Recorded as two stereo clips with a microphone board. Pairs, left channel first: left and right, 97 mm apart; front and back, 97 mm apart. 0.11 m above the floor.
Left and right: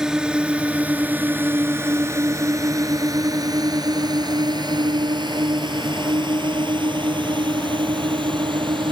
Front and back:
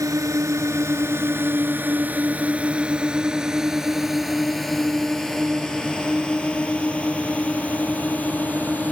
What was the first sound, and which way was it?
A drone, 165° right.